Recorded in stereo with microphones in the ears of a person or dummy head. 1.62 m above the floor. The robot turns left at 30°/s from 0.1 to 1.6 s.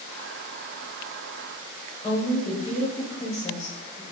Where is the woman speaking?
15° left (ahead or behind), 1.2 m.